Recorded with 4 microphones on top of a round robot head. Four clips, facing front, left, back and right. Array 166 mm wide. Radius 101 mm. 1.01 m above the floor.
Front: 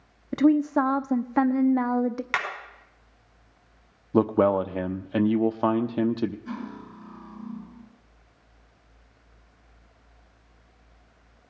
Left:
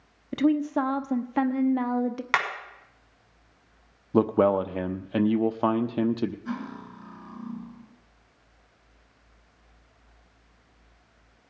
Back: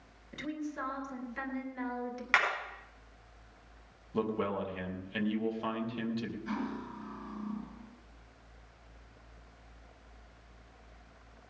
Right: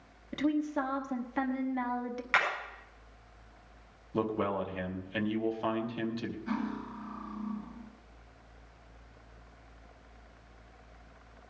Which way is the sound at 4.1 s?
40° left.